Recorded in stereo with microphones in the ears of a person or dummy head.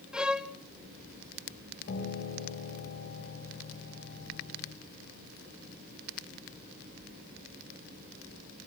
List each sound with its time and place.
0.1 s a violin: centre (ahead or behind), 0.7 m
1.9 s a piano: 65° left (ahead or behind), 4 m